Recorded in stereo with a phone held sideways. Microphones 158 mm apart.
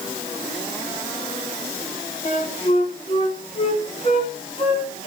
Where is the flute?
45° left (ahead or behind), 4.5 m.